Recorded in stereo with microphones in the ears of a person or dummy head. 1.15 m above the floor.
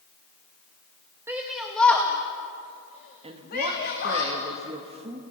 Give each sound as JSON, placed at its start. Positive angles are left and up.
{"t": 1.3, "sound": "a shout", "side_deg": -5, "distance_m": 1.4}
{"t": 3.2, "sound": "a woman speaking", "side_deg": -25, "distance_m": 2.0}